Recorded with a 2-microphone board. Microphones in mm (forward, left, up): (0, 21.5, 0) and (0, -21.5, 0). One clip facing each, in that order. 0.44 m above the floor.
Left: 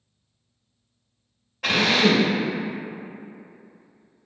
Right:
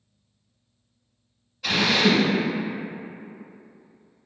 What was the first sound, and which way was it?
A drill, 55° left (ahead or behind).